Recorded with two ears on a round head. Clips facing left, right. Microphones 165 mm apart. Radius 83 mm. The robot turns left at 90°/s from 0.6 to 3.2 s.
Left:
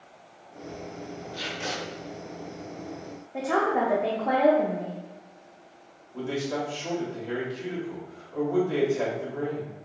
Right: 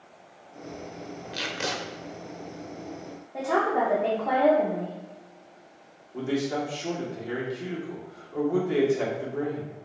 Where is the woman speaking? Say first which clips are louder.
Even; 5° left (ahead or behind), 0.5 m.